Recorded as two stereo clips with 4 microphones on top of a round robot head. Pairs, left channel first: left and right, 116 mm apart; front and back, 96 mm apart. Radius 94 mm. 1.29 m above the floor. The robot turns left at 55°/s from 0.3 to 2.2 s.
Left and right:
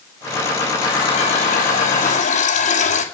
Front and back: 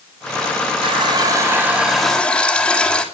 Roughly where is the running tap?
Behind left.